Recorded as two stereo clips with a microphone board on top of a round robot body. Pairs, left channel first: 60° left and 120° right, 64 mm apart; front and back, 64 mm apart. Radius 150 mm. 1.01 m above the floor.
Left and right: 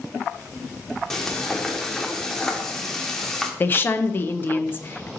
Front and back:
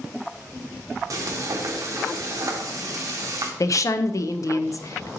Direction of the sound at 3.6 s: 10° left.